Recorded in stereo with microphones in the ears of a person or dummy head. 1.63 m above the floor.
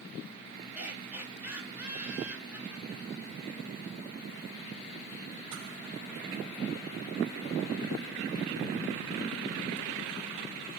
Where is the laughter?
10° right (ahead or behind), 3 m.